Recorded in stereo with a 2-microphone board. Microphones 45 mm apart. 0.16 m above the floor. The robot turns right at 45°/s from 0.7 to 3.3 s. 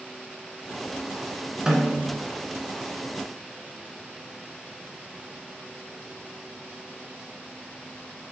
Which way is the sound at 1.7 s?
15° right (ahead or behind).